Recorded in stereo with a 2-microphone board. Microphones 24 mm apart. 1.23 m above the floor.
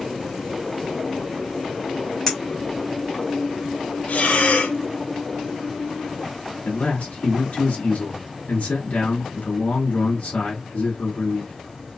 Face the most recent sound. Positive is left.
turn(degrees=85)